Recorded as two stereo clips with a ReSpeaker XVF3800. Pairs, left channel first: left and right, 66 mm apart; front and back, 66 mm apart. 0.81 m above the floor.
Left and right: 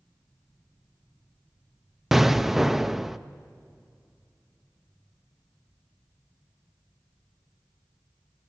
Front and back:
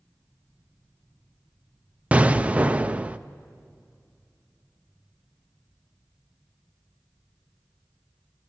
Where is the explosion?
170° right, 0.6 m.